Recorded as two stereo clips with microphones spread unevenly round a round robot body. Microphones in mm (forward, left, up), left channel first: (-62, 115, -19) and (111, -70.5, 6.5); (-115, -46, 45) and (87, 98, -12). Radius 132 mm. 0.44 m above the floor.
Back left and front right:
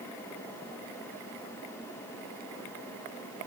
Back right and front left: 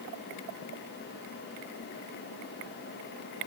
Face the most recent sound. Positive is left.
No sound to turn to.